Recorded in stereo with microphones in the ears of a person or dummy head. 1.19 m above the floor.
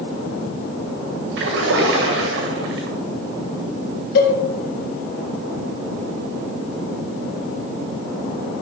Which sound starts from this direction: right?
A splash, at 1.4 s.